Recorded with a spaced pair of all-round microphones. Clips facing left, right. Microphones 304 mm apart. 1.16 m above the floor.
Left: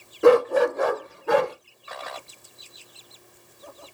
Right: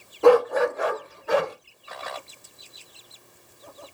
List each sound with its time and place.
0.2 s a dog barking: 20° left (ahead or behind), 0.5 m; by 1.6 s 65° left (ahead or behind), 1.1 m